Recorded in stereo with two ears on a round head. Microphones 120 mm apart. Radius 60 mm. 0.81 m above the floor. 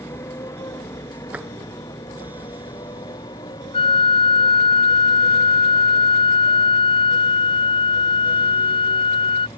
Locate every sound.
0.0 s a motorcycle: 20° left (ahead or behind); by 9.6 s 35° left (ahead or behind)
1.3 s tapping: 10° right (ahead or behind)
3.7 s a flute: 45° left (ahead or behind)